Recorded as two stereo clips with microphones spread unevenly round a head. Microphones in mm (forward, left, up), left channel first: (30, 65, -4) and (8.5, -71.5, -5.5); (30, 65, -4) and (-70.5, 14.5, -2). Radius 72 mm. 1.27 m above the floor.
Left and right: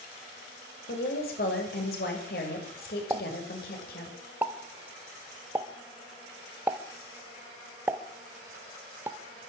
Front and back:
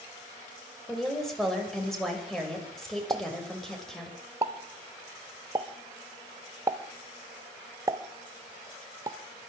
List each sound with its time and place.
0.9 s a woman speaking: 115° left, 5.5 m
3.1 s a pop: 160° right, 1.1 m